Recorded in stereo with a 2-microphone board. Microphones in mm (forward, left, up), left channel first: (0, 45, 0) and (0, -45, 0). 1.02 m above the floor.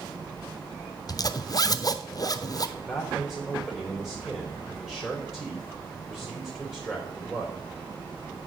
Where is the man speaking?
10° left (ahead or behind), 3 m.